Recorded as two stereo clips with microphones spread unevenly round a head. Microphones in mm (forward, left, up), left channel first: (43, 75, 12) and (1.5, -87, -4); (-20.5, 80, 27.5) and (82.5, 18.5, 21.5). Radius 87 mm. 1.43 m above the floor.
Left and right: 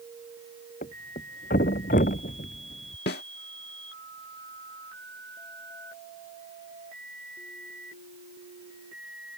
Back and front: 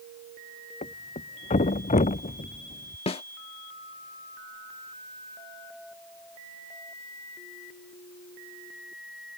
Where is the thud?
125° left.